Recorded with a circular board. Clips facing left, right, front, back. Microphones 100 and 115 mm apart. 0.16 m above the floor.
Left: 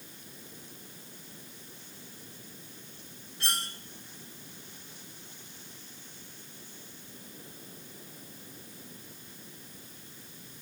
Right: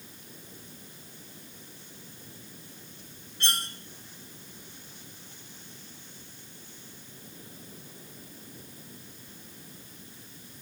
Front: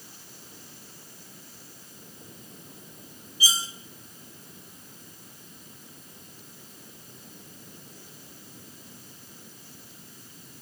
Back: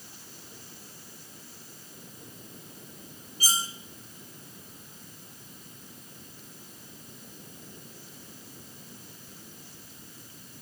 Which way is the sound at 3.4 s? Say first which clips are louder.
Right 2 dB, front 1 dB; 175° left.